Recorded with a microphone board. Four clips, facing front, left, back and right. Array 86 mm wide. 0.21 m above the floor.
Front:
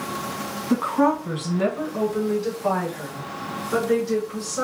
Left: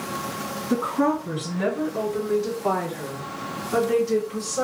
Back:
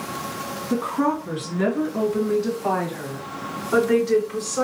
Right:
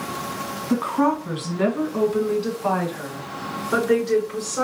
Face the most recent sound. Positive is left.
turn(degrees=-115)